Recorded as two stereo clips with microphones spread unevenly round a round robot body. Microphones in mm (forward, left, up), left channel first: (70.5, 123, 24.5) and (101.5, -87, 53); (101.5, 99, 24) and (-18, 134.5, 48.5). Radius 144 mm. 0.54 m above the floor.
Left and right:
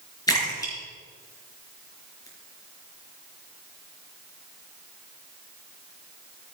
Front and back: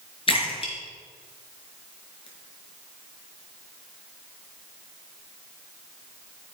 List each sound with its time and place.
0.3 s a splash: 25° left, 4.5 m